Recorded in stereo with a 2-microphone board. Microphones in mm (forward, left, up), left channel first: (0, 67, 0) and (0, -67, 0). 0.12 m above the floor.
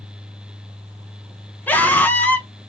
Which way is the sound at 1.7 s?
15° left (ahead or behind).